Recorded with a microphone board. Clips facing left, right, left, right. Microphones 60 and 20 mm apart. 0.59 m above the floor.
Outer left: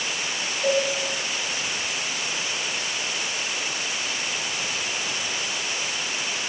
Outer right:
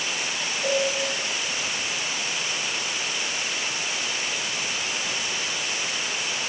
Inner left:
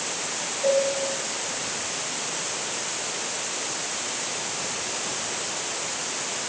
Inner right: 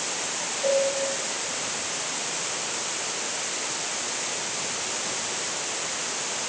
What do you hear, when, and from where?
0.6 s a cowbell: 5° right (ahead or behind), 1.2 m